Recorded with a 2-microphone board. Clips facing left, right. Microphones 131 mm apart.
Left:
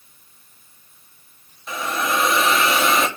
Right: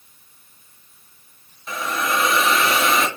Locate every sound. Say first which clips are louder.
1.7 s a hiss: even; 5° left (ahead or behind), 3 m